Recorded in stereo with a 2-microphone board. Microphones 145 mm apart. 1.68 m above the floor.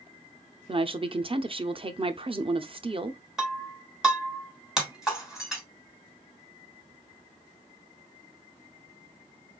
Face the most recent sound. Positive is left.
turn(degrees=-5)  # may be behind; listen again after turning